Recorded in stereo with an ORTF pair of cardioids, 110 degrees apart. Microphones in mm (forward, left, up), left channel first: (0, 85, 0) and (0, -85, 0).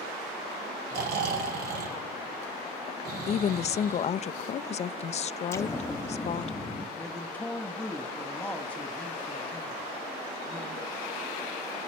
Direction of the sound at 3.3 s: 40° left.